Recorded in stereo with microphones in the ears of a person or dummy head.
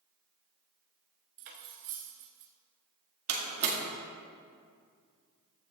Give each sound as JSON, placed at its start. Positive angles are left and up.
{"t": 1.4, "sound": "cutlery clinking", "side_deg": -50, "distance_m": 1.0}
{"t": 3.3, "sound": "a door slam", "side_deg": -60, "distance_m": 1.8}